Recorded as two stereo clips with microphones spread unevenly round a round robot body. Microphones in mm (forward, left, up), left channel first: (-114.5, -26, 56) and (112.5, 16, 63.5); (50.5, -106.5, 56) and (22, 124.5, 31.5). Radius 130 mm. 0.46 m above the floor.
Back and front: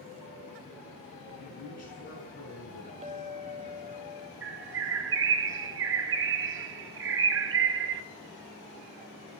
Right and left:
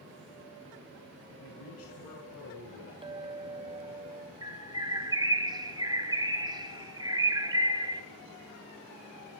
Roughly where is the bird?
Ahead left.